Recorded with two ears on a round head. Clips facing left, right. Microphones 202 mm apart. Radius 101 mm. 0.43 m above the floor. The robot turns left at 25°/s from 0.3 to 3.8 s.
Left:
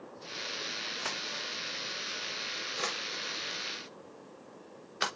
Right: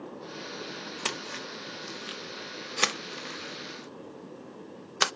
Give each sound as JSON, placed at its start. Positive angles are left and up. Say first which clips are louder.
{"t": 1.1, "sound": "a splash", "louder": "right 5 dB", "side_deg": -50, "distance_m": 0.5}